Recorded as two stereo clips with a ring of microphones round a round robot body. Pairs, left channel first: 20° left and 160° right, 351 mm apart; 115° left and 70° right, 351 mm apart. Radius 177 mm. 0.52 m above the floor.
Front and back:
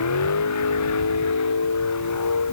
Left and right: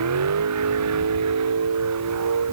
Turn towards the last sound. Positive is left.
turn(degrees=-20)